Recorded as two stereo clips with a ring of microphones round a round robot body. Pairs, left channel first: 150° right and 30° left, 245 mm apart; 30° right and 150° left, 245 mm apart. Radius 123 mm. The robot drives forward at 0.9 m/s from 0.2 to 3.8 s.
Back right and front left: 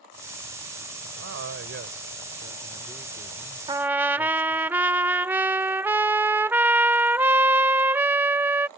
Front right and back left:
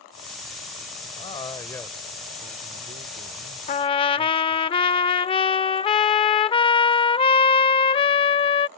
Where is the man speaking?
30° left; by 4.7 s 150° left.